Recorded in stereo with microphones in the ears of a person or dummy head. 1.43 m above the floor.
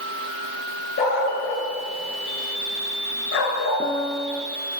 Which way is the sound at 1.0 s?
60° left (ahead or behind).